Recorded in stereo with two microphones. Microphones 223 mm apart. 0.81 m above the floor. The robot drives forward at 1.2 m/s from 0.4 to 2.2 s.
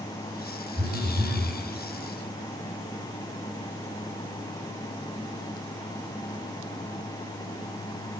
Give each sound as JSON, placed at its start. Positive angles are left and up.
{"t": 0.8, "sound": "a phone buzzing", "side_deg": -15, "distance_m": 4.5}